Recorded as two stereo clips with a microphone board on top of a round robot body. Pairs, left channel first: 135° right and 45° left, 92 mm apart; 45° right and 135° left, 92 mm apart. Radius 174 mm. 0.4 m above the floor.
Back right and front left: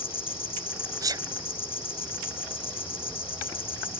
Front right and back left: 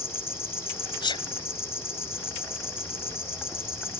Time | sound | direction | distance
0.0 | an insect | 110° right | ?
1.0 | a sneeze | 5° right | ?